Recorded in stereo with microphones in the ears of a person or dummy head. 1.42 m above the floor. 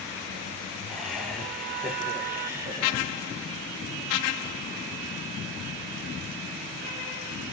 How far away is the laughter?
About 5 m.